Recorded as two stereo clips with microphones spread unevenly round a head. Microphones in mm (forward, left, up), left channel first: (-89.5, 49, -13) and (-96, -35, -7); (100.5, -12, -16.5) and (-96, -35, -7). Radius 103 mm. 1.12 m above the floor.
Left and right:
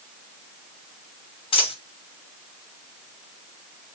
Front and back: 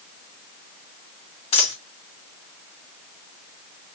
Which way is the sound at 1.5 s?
70° left.